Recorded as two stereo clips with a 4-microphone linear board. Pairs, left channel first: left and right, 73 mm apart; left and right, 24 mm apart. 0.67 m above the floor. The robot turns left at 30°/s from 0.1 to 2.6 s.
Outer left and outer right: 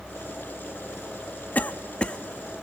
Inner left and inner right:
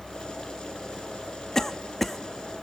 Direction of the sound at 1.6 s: 20° left (ahead or behind).